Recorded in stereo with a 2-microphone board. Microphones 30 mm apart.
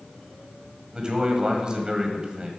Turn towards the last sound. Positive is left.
turn(degrees=-25)  # may be behind; listen again after turning